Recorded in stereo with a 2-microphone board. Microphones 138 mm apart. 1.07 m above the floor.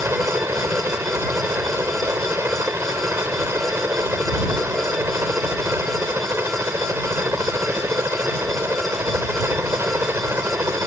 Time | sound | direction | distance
0.0 | a helicopter | 15° right (ahead or behind) | ?